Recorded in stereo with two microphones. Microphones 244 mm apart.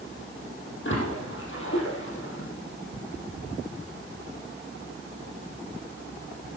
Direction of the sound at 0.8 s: 55° left (ahead or behind).